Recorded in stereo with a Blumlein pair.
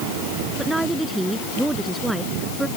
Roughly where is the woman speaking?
Ahead.